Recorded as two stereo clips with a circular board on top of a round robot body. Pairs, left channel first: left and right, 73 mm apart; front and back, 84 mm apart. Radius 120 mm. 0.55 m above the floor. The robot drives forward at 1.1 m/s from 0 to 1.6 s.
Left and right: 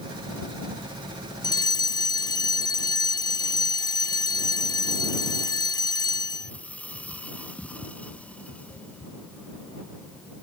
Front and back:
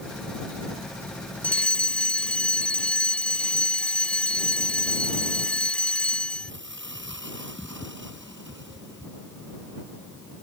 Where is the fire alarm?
75° left.